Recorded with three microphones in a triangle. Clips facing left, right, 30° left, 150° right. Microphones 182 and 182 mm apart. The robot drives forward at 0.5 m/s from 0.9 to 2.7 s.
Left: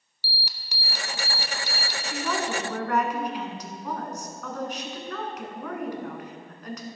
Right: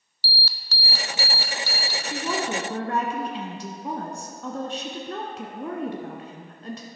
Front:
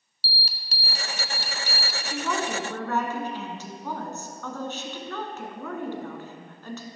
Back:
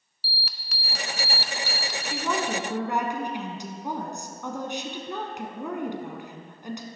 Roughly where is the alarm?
Ahead left.